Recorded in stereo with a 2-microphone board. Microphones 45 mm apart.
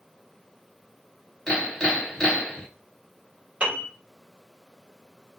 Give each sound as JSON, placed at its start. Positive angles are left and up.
{"t": 1.5, "sound": "hammering", "side_deg": 15, "distance_m": 2.0}
{"t": 3.6, "sound": "a piano", "side_deg": -30, "distance_m": 1.6}